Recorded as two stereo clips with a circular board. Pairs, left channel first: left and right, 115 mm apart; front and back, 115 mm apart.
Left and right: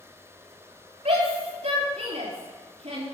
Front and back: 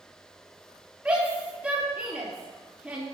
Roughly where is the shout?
Right.